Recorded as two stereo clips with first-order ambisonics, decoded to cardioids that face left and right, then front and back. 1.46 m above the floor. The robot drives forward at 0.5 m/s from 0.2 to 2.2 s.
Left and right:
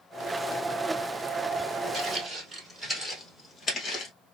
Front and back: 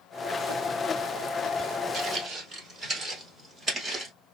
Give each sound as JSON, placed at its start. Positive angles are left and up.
{"t": 1.9, "sound": "footsteps", "azimuth_deg": -140, "distance_m": 1.8}